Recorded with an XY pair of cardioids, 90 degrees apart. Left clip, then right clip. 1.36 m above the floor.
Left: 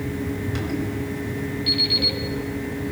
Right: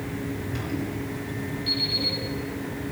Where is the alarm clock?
50° left, 6.5 m.